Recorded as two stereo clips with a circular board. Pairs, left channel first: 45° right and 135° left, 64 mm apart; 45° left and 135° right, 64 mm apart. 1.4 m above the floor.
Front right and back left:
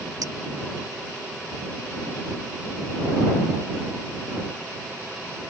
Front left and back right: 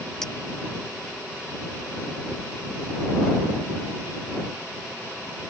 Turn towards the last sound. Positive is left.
turn(degrees=130)